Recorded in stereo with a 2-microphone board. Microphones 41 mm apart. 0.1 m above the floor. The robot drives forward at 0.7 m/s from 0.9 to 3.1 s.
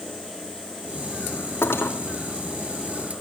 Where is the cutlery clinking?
75° left (ahead or behind), 3 m.